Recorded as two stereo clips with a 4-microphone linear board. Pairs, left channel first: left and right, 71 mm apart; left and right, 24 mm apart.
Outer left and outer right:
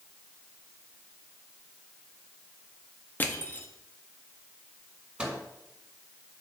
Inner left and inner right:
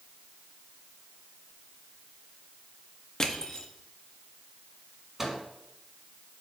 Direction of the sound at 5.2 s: 15° right (ahead or behind).